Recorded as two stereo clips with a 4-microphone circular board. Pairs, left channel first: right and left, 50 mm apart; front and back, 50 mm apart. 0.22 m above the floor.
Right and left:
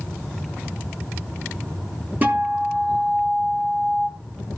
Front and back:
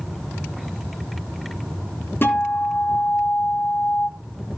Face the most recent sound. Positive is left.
turn(degrees=40)